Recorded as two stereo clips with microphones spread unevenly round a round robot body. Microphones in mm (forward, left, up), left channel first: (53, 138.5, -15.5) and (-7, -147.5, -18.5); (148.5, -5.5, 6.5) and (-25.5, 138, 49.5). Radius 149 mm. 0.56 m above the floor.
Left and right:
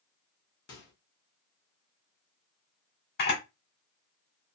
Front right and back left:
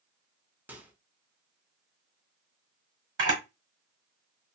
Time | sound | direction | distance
0.7 | a microwave | 50° left | 1.0 m
3.2 | a camera shutter | 120° left | 1.4 m